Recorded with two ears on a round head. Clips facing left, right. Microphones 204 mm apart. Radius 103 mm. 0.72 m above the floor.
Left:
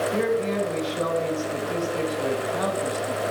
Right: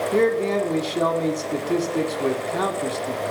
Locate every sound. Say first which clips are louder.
0.1 s a man speaking: right 7 dB; 65° right (ahead or behind), 1.4 m